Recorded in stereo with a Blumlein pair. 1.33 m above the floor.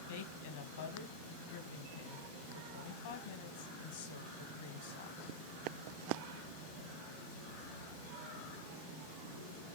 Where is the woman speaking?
60° left, 1.9 m.